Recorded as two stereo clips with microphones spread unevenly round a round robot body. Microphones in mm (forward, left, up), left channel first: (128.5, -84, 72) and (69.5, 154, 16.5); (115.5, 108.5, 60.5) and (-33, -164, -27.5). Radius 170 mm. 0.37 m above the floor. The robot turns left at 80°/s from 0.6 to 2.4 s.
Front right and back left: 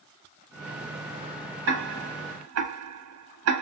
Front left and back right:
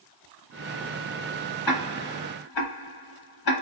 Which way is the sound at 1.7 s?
150° left.